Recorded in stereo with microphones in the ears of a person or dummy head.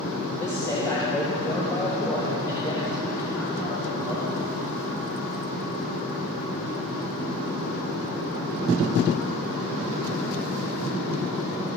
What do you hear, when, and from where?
0.4 s a man speaking: 10° left (ahead or behind), 3 m; by 4.4 s 25° left (ahead or behind), 6 m